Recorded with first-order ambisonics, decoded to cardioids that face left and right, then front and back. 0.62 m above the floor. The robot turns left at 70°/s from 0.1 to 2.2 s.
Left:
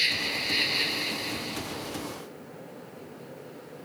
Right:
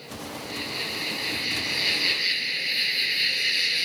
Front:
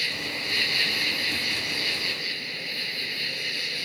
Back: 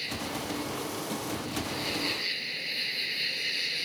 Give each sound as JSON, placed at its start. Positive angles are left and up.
{"t": 0.0, "sound": "an insect", "azimuth_deg": 60}